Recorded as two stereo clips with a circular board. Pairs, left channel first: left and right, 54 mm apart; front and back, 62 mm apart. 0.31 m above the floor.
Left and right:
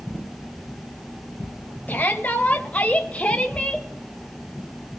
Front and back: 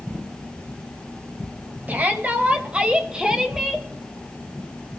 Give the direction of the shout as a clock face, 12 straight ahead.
8 o'clock.